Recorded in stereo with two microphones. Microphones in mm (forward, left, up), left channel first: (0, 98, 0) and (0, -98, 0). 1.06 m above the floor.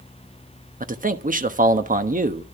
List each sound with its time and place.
0.8 s a man speaking: 40° right (ahead or behind), 1.1 m